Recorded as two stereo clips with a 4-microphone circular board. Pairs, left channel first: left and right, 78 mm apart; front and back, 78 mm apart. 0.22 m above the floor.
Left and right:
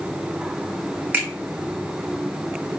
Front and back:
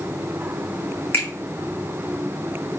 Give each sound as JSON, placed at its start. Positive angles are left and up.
{"t": 1.1, "sound": "a finger snap", "azimuth_deg": -35, "distance_m": 1.6}